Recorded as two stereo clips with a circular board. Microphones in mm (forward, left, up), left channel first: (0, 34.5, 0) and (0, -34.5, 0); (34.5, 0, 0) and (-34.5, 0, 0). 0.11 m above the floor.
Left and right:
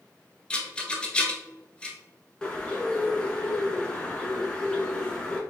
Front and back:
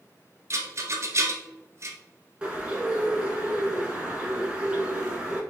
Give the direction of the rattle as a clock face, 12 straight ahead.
7 o'clock.